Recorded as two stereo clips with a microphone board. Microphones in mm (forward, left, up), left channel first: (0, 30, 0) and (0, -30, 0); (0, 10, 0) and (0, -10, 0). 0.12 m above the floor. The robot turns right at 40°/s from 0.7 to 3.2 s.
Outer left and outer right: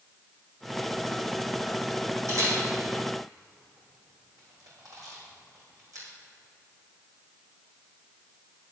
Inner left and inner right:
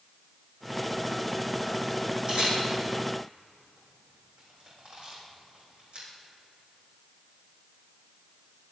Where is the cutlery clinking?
No cutlery clinking in this recording.